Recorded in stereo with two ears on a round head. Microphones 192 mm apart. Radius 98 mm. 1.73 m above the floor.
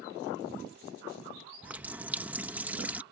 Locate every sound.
1.6 s a running tap: 10° right (ahead or behind)